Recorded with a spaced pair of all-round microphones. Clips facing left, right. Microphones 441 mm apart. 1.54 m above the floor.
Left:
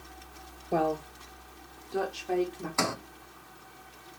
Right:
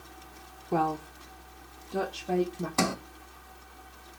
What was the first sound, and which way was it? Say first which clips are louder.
A woman speaking: left 1 dB; 15° right (ahead or behind).